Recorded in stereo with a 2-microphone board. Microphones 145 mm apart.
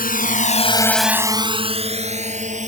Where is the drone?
80° left; by 2.7 s 55° right (ahead or behind).